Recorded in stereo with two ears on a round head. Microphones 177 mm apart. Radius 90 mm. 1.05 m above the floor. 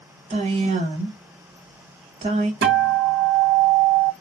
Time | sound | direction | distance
0.3 | a woman speaking | 35° right (ahead or behind) | 1.4 m
2.6 | a guitar | 55° right (ahead or behind) | 1.4 m